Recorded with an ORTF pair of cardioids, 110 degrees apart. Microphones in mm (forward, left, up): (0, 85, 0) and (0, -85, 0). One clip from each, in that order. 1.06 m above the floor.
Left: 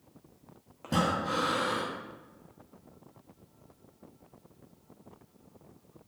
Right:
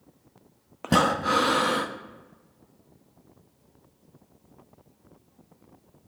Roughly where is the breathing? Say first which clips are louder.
Right 7 dB; ahead right.